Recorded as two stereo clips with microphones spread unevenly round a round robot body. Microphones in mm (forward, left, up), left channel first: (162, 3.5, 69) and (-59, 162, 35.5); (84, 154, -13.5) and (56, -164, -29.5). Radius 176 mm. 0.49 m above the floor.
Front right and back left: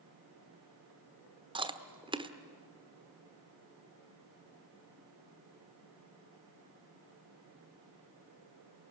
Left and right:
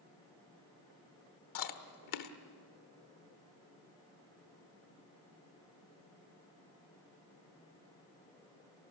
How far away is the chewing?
About 1.3 m.